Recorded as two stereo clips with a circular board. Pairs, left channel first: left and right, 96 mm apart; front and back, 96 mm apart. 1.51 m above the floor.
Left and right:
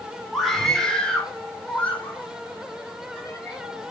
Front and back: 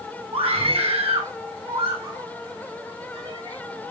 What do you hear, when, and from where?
0.3 s a scream: straight behind, 5.5 m; by 3.9 s 155° left, 7 m